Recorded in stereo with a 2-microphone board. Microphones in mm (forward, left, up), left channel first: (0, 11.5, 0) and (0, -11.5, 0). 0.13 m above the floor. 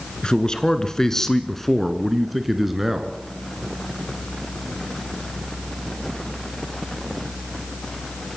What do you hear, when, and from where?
0.2 s a man speaking: 35° left (ahead or behind), 1.9 m; by 3.2 s 15° right (ahead or behind), 2.0 m